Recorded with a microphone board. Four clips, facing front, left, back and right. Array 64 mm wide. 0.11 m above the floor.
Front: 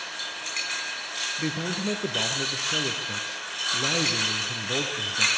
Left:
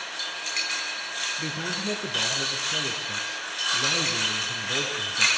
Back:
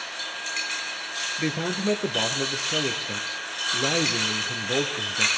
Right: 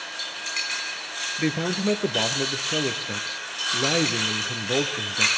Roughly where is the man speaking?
Behind right.